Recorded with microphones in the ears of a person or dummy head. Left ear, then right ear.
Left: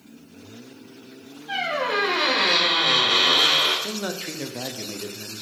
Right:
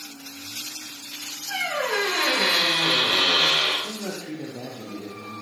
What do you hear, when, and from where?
1.5 s a squeak: 25° left (ahead or behind), 4 m
3.8 s a man speaking: 60° left (ahead or behind), 0.8 m